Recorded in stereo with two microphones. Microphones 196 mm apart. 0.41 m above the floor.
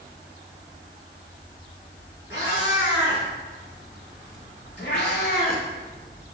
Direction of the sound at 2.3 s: 75° left (ahead or behind).